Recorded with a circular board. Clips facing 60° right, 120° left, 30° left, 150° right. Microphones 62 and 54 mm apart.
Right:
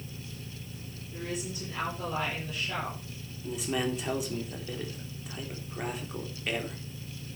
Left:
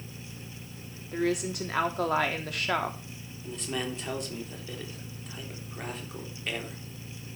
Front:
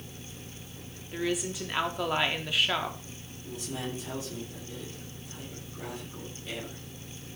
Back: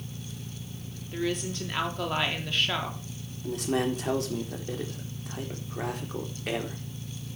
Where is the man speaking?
145° right, 4 m.